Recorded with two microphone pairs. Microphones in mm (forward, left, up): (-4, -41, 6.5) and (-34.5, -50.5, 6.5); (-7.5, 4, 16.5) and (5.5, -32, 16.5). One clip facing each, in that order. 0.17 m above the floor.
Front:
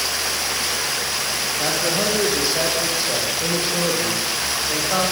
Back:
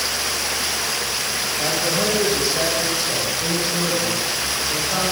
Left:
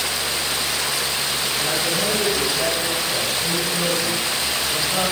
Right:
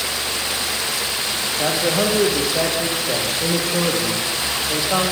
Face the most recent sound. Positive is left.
turn(degrees=-55)